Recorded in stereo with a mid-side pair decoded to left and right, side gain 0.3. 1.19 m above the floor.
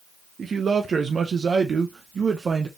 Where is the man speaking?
60° right, 0.6 m.